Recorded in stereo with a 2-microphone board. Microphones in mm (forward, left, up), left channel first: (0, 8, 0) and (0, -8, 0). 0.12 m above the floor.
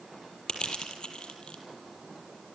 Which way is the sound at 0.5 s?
65° left (ahead or behind).